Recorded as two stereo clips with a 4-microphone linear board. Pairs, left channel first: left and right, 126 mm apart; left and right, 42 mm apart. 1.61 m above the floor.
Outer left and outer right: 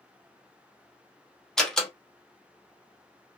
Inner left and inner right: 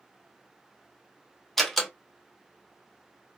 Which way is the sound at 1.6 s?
5° left (ahead or behind).